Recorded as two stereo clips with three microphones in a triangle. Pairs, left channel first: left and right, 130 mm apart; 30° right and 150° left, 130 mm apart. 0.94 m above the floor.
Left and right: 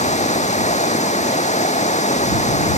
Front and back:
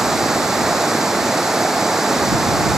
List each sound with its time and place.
0.0 s running water: 65° left